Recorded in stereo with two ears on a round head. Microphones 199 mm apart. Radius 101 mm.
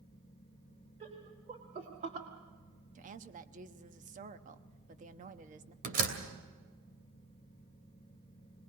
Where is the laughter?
30° right (ahead or behind), 3 m; by 2.3 s 40° right (ahead or behind), 1.4 m.